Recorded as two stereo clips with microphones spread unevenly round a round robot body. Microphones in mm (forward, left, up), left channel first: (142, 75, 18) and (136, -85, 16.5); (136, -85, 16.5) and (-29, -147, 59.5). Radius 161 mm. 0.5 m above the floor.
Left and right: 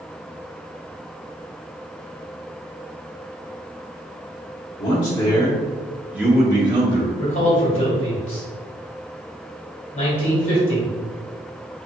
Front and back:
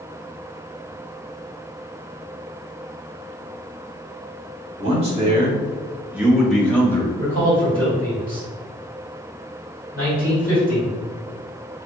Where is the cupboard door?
No cupboard door in this recording.